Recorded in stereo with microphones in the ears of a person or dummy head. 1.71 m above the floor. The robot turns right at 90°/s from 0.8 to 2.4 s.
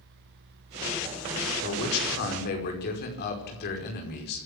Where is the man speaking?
60° left, 5 m; by 4.5 s 130° left, 5 m.